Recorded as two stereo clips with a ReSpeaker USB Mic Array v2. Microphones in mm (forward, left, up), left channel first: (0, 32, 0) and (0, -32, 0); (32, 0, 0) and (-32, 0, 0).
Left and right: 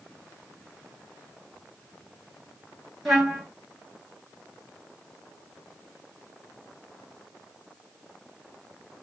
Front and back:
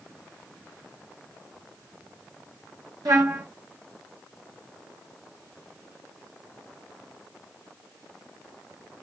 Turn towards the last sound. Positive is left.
turn(degrees=180)